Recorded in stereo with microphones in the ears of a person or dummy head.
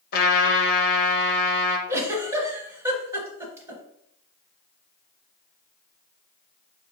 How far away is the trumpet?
About 1.0 m.